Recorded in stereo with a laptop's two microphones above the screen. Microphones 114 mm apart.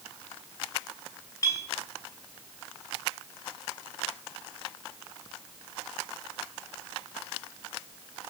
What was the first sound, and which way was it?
A clink, 25° left (ahead or behind).